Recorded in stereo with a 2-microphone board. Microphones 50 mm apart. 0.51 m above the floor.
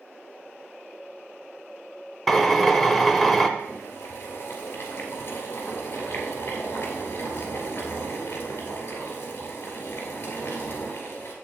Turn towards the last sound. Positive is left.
turn(degrees=45)  # may be behind; listen again after turning